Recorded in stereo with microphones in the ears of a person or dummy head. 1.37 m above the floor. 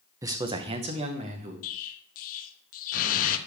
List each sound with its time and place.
0.2 s a man speaking: 20° right (ahead or behind), 0.7 m; by 1.5 s 45° right (ahead or behind), 1.5 m
1.6 s an explosion: 50° left (ahead or behind), 0.7 m